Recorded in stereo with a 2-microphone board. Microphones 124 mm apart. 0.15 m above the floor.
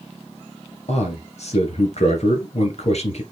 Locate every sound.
0.9 s a man speaking: 60° left (ahead or behind), 2.5 m